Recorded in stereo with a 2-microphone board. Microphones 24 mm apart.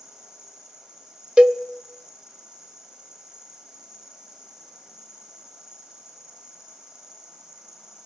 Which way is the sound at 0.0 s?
30° right (ahead or behind).